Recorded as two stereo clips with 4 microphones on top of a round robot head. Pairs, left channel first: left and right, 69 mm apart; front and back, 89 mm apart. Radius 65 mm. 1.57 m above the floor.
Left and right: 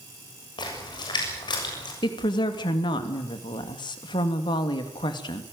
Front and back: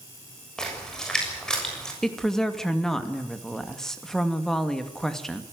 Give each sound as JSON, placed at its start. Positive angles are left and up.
{"t": 0.6, "sound": "a splash", "azimuth_deg": 85, "distance_m": 6.5}
{"t": 2.0, "sound": "a woman speaking", "azimuth_deg": 85, "distance_m": 2.5}